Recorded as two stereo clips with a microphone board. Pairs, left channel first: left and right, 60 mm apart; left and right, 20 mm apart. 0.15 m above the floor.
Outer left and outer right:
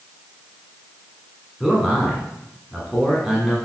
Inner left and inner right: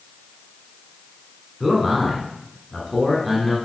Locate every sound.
1.6 s a man speaking: 5° right (ahead or behind), 1.6 m